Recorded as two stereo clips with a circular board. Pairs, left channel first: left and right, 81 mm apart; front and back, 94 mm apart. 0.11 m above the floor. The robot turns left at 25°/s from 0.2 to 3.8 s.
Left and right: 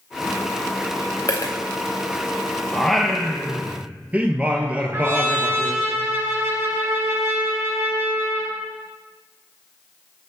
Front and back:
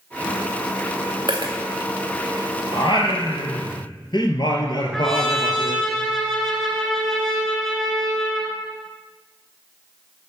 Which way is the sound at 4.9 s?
85° right.